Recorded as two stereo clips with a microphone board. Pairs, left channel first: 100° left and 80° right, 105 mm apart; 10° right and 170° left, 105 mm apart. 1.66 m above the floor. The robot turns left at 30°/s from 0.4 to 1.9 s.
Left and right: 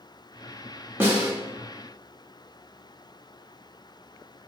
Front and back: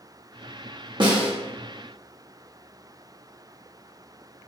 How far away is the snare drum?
About 1.2 m.